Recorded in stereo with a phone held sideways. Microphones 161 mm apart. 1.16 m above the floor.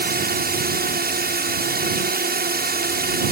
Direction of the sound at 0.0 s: 70° right (ahead or behind).